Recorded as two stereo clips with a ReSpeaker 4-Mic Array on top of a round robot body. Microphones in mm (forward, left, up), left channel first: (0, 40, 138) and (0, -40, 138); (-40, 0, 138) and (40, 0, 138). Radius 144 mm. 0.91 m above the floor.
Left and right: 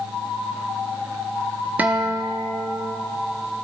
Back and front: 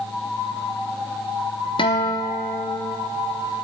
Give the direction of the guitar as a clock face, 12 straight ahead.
5 o'clock.